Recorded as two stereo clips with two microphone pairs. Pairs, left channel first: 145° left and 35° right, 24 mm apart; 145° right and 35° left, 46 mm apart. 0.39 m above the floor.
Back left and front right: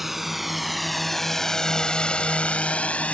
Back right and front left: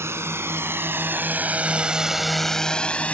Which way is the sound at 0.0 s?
45° left.